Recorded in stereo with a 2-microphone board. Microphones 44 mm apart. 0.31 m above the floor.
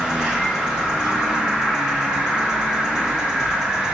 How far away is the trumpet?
I don't hear a trumpet.